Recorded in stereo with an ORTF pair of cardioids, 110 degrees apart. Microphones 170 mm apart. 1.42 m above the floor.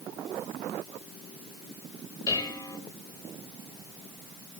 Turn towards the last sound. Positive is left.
turn(degrees=20)